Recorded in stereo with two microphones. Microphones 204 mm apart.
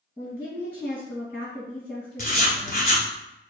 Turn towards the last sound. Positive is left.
turn(degrees=45)  # may be behind; listen again after turning